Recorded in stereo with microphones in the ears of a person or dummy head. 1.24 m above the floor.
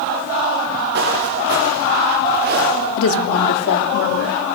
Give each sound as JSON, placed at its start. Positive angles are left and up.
{"t": 0.9, "sound": "footsteps", "side_deg": -65, "distance_m": 7.0}
{"t": 3.0, "sound": "a woman speaking", "side_deg": 85, "distance_m": 2.5}